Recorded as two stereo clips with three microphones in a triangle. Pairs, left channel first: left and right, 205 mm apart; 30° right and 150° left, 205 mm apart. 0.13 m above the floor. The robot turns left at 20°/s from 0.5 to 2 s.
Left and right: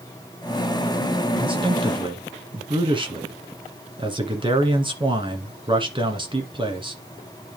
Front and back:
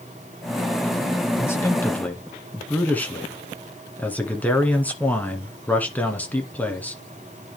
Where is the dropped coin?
I don't hear a dropped coin.